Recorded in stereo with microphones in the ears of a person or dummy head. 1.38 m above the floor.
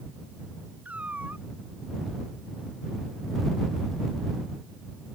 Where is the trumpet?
No trumpet in this recording.